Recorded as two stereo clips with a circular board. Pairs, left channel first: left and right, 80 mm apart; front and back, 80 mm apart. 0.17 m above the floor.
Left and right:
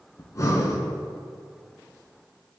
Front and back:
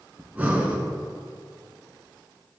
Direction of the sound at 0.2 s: 115° left.